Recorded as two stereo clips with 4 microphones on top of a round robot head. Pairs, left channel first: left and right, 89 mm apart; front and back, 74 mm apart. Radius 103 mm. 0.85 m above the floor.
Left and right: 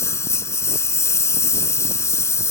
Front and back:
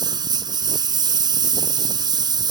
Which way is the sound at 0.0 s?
150° left.